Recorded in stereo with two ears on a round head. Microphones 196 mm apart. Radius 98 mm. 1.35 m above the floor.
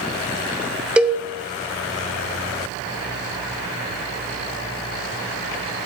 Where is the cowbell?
5° right (ahead or behind), 0.7 m.